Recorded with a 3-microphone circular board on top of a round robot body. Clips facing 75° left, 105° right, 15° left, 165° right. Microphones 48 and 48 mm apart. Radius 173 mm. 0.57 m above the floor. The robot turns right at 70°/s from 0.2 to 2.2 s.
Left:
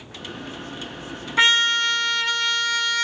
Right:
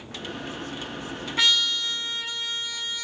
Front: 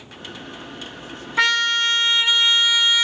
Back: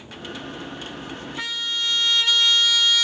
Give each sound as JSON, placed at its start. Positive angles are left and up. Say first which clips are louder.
{"t": 1.4, "sound": "a trumpet", "louder": "left 6 dB, front 11 dB", "azimuth_deg": 25, "distance_m": 0.5}